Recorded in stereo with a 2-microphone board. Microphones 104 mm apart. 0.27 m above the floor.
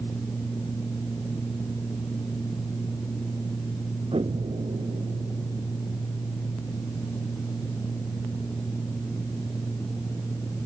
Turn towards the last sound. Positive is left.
turn(degrees=-70)  # may be behind; listen again after turning